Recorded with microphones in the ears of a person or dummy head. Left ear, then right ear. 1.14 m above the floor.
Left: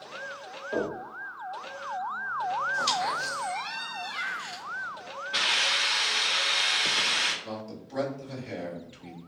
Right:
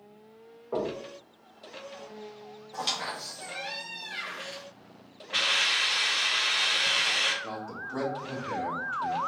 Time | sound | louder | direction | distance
0.7 | knocking | left 1 dB | 30° right (ahead or behind) | 1.5 m
2.7 | a squeak | right 1 dB | 15° right (ahead or behind) | 0.6 m
5.3 | a hiss | even | 30° right (ahead or behind) | 1.9 m
7.4 | a man speaking | right 3 dB | 35° right (ahead or behind) | 1.4 m